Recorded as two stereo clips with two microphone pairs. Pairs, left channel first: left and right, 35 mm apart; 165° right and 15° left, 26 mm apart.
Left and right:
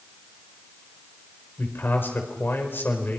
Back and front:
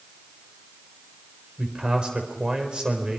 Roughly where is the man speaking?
Left.